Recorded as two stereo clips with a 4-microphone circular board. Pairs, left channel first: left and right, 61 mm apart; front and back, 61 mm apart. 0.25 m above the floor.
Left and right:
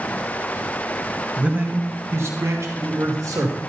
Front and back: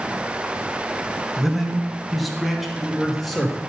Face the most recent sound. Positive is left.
turn(degrees=-90)